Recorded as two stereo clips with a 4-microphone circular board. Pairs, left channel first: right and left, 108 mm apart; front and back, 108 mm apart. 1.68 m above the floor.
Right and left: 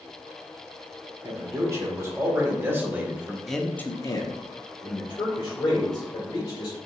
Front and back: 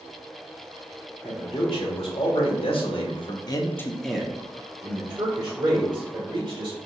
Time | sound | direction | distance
1.2 | a man speaking | 30° left | 1.9 m